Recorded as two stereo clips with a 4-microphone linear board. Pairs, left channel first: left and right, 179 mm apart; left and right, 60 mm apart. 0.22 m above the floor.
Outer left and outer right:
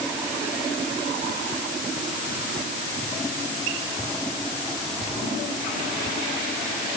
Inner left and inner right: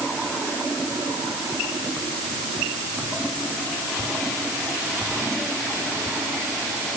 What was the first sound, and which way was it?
Only background noise.